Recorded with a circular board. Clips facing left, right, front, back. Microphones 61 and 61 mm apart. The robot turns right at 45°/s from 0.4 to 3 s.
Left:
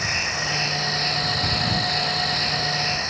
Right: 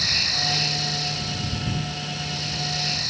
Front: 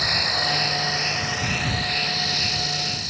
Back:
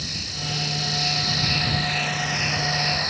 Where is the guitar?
I don't hear a guitar.